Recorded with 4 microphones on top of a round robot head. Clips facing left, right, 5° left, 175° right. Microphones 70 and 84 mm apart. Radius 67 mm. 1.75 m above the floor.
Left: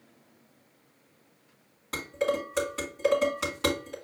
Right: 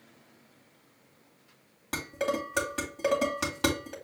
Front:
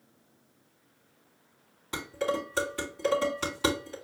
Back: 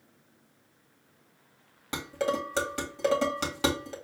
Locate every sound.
1.9 s dishes clattering: 150° right, 1.8 m